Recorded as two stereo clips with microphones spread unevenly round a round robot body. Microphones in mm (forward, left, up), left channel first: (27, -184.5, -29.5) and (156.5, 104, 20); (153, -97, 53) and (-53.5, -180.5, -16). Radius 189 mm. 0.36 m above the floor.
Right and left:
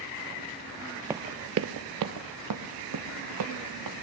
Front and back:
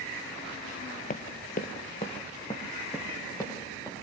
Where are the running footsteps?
10° right, 0.5 m; by 3.9 s 105° left, 1.9 m.